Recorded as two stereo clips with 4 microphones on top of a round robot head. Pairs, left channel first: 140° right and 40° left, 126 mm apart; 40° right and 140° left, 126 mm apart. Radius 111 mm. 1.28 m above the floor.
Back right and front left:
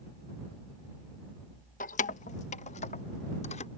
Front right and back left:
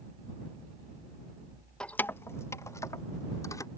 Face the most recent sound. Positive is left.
turn(degrees=-105)